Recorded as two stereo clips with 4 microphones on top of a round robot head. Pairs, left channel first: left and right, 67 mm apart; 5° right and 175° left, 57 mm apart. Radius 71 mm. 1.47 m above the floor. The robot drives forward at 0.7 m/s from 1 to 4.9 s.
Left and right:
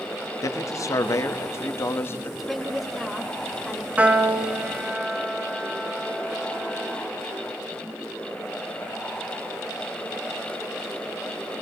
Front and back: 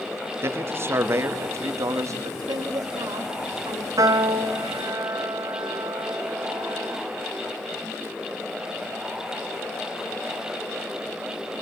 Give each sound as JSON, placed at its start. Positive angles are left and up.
{"t": 0.4, "sound": "a man speaking", "azimuth_deg": 130, "distance_m": 2.0}
{"t": 2.4, "sound": "a woman speaking", "azimuth_deg": 180, "distance_m": 3.5}
{"t": 4.0, "sound": "a piano", "azimuth_deg": -160, "distance_m": 2.5}